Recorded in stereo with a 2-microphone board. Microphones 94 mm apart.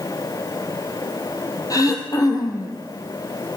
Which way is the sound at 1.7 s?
40° left (ahead or behind).